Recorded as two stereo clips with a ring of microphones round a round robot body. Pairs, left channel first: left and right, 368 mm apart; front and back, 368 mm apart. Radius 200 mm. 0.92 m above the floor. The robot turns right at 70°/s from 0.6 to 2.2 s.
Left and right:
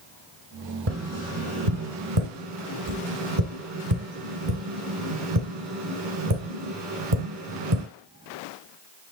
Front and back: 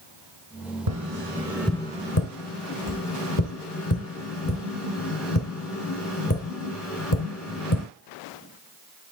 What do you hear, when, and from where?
0.9 s tapping: 150° right, 2.5 m; by 7.8 s 55° right, 2.5 m